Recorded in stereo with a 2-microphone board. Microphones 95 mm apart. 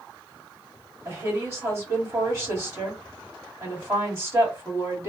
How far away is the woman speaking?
About 2.0 m.